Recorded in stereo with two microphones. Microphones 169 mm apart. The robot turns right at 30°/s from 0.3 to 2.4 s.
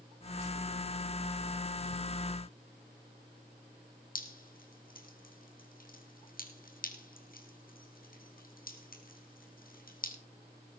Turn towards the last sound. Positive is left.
turn(degrees=50)  # may be behind; listen again after turning